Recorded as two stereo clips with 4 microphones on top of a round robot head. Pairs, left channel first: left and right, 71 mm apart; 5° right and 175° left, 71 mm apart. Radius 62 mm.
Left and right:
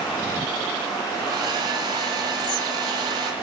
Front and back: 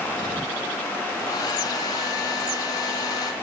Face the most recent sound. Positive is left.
turn(degrees=-50)